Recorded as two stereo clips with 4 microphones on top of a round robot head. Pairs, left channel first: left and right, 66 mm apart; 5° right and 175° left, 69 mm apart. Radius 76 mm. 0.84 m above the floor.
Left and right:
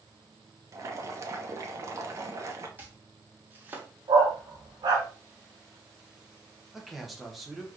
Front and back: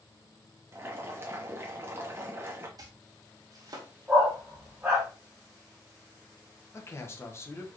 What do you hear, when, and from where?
0.7 s boiling: 130° right, 1.1 m
2.8 s chopping: 150° right, 1.4 m
4.1 s a dog barking: 105° right, 1.4 m
6.7 s a man speaking: 5° right, 1.1 m